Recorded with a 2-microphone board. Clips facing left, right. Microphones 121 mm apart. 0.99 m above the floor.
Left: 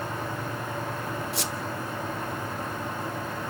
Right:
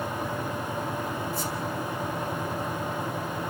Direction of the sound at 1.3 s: 80° left.